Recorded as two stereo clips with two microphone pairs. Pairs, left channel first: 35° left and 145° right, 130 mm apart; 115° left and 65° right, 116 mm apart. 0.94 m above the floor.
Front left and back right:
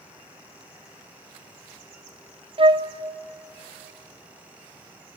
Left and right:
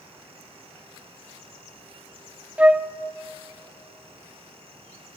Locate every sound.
2.6 s a flute: 145° right, 0.5 m